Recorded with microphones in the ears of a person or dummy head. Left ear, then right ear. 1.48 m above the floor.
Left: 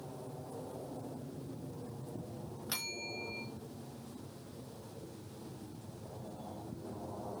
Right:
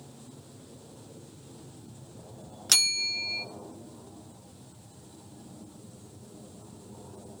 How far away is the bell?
About 0.8 m.